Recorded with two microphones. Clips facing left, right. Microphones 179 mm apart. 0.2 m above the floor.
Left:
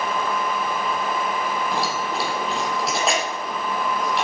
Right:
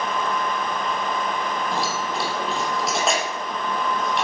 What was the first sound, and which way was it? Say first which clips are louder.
Keys jangling: left 1 dB; centre (ahead or behind).